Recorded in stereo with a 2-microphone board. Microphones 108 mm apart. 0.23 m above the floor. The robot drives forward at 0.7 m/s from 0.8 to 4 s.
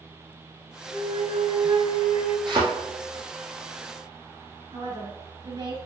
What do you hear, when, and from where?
0.9 s a flute: 65° right (ahead or behind), 2.5 m; by 2.4 s 50° right (ahead or behind), 3 m
2.5 s a thud: 45° right (ahead or behind), 3 m; by 2.6 s 50° right (ahead or behind), 3 m
4.7 s a woman speaking: 50° right (ahead or behind), 3 m